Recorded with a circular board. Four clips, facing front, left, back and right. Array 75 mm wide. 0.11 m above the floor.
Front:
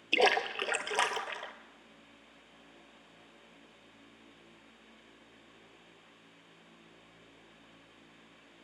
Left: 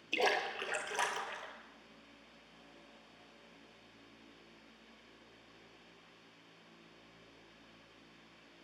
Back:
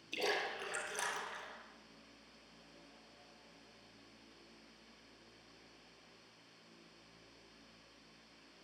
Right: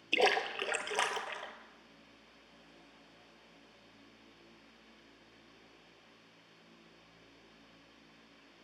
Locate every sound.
0.1 s a splash: 20° right, 0.7 m